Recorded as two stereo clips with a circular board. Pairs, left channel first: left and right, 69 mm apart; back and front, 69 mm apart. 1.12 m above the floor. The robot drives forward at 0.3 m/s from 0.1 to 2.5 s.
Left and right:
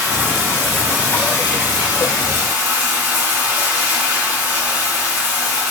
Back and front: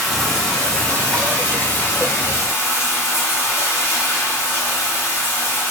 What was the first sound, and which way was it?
Running water, 95° right.